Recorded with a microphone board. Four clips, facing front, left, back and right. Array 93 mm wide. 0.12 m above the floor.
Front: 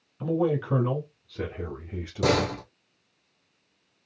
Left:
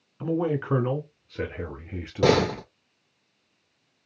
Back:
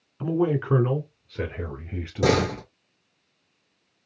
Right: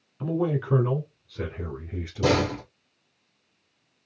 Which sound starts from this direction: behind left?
A man speaking, at 0.2 s.